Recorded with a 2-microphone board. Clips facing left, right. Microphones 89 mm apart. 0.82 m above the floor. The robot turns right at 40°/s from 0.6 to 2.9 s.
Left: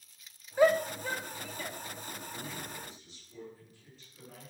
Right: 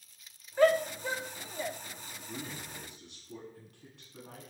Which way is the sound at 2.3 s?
80° right.